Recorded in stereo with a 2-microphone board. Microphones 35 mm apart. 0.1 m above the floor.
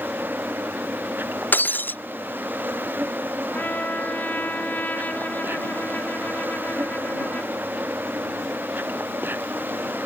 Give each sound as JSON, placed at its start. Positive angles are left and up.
{"t": 0.0, "sound": "an insect", "side_deg": -65}
{"t": 1.5, "sound": "breaking glass", "side_deg": 60}
{"t": 3.5, "sound": "a trumpet", "side_deg": 50}